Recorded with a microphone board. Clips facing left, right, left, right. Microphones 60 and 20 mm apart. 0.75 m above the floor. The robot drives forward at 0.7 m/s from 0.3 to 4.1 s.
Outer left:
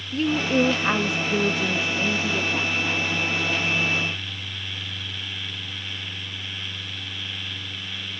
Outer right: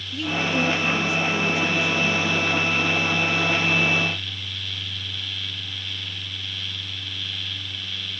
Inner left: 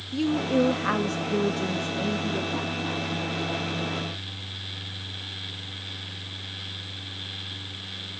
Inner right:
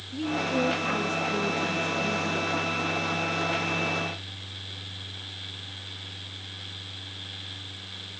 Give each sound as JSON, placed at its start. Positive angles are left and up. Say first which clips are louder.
{"t": 0.1, "sound": "a woman speaking", "louder": "outer left 3 dB, inner left 4 dB", "side_deg": 40, "distance_m": 0.9}